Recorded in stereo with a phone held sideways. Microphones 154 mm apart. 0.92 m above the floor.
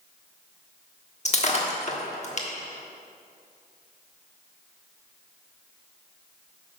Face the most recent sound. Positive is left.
turn(degrees=45)  # may be behind; listen again after turning